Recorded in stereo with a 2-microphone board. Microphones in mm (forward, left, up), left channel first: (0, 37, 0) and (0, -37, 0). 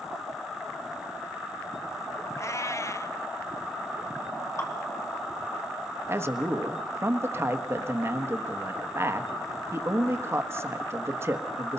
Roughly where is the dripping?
Left.